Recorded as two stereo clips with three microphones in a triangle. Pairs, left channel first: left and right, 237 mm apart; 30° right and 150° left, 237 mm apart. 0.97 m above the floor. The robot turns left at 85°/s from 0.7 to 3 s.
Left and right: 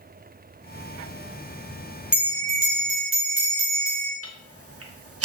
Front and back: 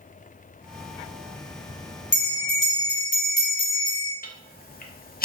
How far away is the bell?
About 1.0 m.